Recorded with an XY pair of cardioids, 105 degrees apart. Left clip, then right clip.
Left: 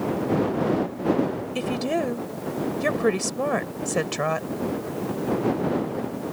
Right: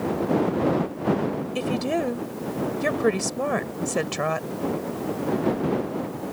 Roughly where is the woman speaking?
Ahead.